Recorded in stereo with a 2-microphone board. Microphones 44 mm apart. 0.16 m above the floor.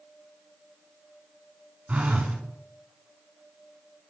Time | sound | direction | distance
1.9 | a phone buzzing | 35° right (ahead or behind) | 0.7 m